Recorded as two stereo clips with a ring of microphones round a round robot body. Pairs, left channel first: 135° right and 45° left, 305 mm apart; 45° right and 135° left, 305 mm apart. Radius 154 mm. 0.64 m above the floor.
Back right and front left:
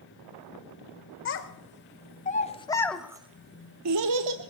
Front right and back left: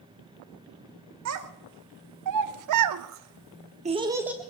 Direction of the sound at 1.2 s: 175° left.